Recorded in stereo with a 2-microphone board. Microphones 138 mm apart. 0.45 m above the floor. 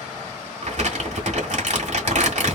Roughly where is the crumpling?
Right.